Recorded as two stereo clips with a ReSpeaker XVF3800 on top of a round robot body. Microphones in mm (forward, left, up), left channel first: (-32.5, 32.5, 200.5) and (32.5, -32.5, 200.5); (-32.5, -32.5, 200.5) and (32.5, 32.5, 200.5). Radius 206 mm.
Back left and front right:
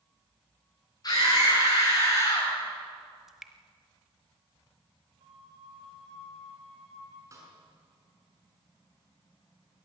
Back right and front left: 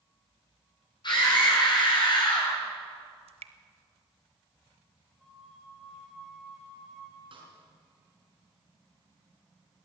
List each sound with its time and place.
1.0 s a scream: 175° right, 8 m; by 2.5 s 170° right, 9 m
3.3 s dripping: 40° left, 0.8 m
5.2 s a flute: 45° right, 5.5 m
7.3 s a snare drum: 15° left, 5.5 m